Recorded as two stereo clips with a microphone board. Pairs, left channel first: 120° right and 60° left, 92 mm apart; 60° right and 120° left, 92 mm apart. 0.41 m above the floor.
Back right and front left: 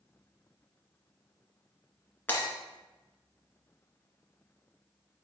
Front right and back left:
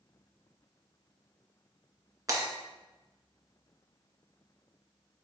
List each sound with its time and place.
2.3 s breaking glass: 170° left, 1.9 m